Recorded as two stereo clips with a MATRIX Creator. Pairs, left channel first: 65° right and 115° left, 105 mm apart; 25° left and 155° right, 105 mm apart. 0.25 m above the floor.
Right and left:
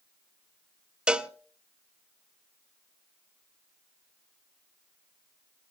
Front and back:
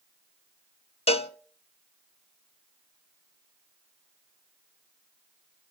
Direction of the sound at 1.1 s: 30° left.